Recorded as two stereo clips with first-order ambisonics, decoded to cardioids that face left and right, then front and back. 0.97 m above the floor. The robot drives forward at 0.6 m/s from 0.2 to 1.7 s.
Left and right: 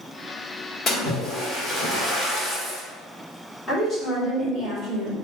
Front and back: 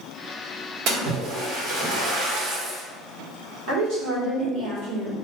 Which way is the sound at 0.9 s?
150° left.